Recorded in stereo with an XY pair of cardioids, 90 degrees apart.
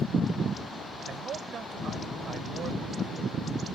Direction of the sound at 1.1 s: 60° right.